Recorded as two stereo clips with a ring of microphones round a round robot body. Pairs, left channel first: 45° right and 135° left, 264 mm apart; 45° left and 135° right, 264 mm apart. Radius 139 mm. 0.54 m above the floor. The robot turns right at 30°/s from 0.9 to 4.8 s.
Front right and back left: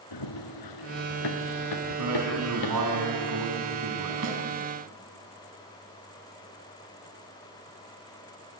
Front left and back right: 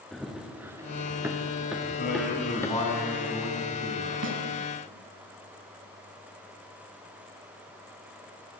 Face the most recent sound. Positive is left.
turn(degrees=-165)